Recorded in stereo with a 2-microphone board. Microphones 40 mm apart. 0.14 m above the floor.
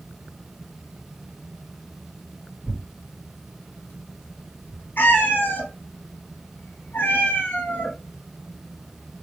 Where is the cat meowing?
55° left (ahead or behind), 1.2 m.